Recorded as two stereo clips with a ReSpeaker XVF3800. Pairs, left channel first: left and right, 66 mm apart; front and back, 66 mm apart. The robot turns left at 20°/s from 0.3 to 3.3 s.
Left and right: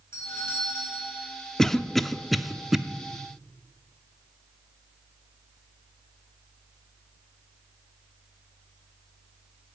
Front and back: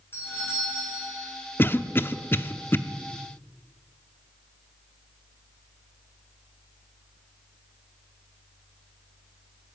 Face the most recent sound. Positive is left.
turn(degrees=-20)